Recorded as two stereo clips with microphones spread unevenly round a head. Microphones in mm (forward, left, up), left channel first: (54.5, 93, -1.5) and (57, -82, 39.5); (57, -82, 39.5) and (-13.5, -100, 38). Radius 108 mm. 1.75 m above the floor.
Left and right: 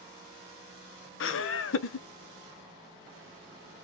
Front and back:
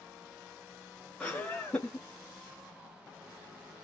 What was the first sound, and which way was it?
Laughter, 95° left.